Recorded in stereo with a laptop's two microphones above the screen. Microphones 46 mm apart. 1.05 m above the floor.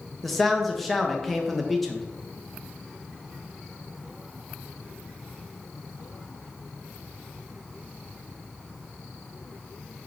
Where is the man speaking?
Centre (ahead or behind), 0.6 m.